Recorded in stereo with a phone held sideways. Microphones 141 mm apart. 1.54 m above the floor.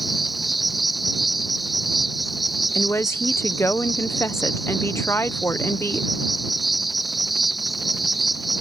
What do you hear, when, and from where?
0.0 s an insect: centre (ahead or behind)
2.8 s a woman speaking: 20° left (ahead or behind)